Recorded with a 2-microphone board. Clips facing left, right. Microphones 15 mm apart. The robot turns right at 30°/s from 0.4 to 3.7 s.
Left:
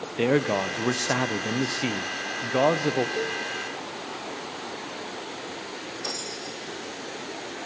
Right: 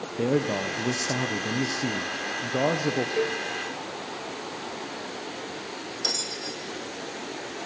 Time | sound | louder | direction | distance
0.2 | a man speaking | left 2 dB | 65° left | 0.7 m
3.2 | a cowbell | right 2 dB | 40° right (ahead or behind) | 0.5 m
6.0 | a bell | right 6 dB | 25° right (ahead or behind) | 2 m